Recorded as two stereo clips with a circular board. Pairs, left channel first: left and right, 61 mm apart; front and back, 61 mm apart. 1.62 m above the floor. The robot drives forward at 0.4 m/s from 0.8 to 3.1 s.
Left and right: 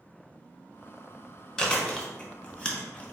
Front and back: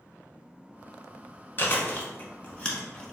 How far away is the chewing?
About 1.2 m.